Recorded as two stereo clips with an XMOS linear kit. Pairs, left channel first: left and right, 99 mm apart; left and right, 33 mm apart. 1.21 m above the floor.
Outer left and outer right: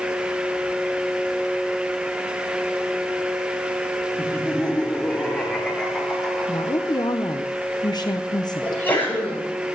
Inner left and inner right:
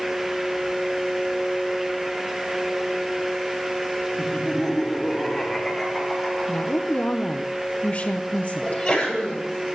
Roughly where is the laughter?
Centre.